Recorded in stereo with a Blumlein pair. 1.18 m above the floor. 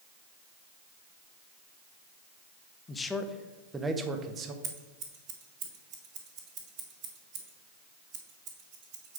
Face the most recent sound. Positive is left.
turn(degrees=-40)